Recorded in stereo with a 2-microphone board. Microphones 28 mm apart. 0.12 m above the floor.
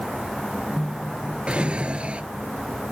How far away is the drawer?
About 1.0 m.